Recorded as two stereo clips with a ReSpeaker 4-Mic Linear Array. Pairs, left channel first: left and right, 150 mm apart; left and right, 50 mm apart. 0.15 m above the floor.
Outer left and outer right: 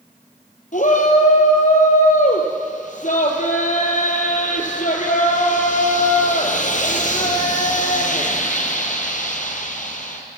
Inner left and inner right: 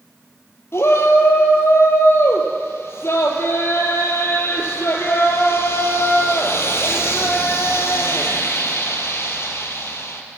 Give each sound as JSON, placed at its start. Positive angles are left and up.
{"t": 0.7, "sound": "a shout", "side_deg": 55, "distance_m": 4.0}